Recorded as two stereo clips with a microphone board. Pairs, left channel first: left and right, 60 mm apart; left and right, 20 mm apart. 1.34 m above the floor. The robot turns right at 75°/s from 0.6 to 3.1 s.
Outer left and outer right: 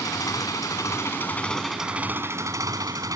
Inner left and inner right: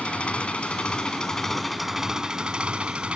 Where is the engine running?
95° left; by 3.2 s 75° right.